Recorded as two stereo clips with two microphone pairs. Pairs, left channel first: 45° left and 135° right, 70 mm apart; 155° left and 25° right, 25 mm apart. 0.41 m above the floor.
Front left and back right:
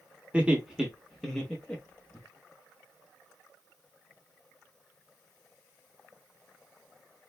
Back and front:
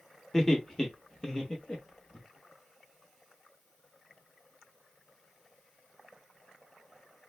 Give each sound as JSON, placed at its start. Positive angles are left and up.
{"t": 0.3, "sound": "laughter", "azimuth_deg": -155, "distance_m": 0.9}